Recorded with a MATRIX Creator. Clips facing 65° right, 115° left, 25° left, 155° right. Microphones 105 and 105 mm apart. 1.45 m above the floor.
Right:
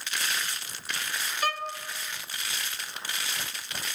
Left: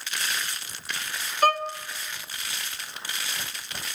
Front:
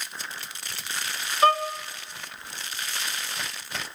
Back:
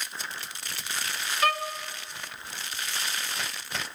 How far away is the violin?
About 0.6 m.